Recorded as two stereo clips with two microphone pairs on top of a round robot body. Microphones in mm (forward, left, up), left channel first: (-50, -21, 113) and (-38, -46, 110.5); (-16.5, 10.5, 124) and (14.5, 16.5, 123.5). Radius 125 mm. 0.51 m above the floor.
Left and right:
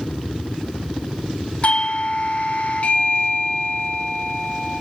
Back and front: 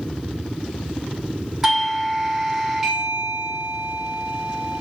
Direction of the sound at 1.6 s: 85° left.